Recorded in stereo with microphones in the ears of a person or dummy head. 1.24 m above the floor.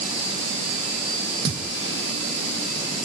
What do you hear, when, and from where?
1.4 s a thud: 25° right (ahead or behind), 1.7 m